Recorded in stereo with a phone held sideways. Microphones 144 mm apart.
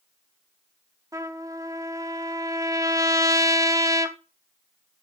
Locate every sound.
1.1 s a trumpet: 25° right (ahead or behind), 0.7 m